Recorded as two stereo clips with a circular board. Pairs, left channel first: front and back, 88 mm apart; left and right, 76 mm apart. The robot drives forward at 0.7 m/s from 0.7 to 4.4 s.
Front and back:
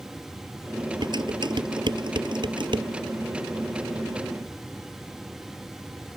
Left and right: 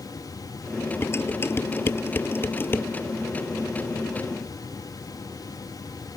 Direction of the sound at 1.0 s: 150° left.